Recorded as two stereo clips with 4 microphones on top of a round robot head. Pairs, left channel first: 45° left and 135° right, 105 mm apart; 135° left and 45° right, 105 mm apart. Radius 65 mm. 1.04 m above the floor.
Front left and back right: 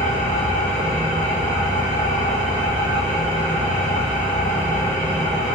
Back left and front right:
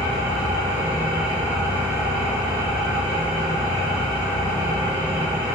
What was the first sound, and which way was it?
An engine running, 90° right.